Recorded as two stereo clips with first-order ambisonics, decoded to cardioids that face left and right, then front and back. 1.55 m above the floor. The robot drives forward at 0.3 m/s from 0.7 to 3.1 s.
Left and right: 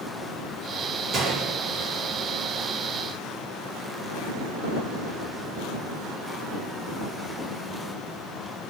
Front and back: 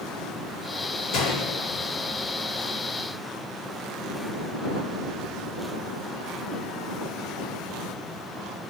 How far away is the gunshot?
About 1.1 m.